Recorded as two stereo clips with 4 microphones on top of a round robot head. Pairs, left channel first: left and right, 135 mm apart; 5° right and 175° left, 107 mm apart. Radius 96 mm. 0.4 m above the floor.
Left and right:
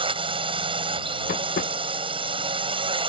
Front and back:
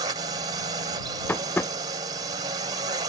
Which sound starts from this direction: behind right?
A drone, at 0.0 s.